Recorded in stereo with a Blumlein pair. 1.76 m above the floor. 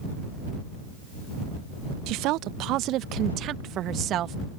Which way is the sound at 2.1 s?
40° right.